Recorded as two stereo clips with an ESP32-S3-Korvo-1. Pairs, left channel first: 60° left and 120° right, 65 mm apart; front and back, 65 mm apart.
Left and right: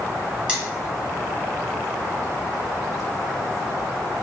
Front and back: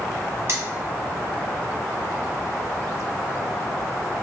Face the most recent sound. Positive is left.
turn(degrees=175)